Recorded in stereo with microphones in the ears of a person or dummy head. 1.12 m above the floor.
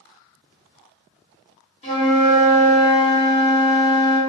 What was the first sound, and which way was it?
A flute, 35° left (ahead or behind).